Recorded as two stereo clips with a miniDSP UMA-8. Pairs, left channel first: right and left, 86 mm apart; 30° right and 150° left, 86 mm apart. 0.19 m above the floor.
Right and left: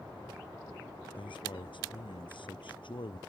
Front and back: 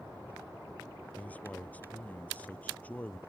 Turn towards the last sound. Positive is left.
turn(degrees=-100)